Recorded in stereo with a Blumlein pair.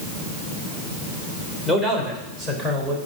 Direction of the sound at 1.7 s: 5° right.